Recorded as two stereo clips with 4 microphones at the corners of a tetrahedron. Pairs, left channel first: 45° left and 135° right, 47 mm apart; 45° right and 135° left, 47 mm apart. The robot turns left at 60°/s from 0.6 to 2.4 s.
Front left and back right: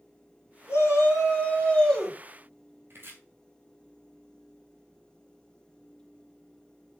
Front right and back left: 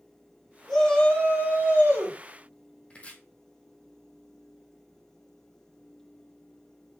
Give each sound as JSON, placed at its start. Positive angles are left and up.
{"t": 0.7, "sound": "a shout", "azimuth_deg": 40, "distance_m": 5.5}
{"t": 2.9, "sound": "chopping", "azimuth_deg": -105, "distance_m": 1.8}